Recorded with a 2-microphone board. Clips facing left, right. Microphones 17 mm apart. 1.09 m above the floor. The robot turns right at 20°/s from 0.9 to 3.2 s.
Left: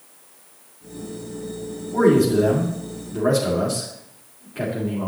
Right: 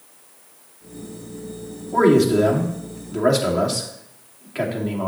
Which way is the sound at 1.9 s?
60° right (ahead or behind).